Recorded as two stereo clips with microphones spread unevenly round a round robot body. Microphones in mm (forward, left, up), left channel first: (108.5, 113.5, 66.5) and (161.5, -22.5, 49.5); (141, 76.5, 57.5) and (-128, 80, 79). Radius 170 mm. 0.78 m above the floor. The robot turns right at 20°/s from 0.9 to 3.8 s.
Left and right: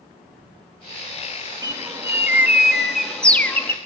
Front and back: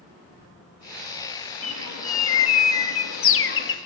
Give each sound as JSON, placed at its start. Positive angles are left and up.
{"t": 1.6, "sound": "a bird", "azimuth_deg": -10, "distance_m": 1.4}